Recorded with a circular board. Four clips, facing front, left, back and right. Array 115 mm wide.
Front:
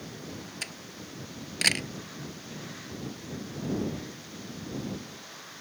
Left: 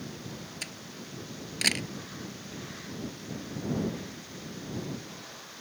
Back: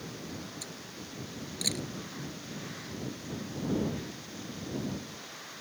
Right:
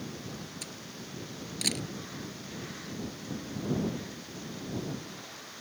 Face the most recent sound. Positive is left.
turn(degrees=25)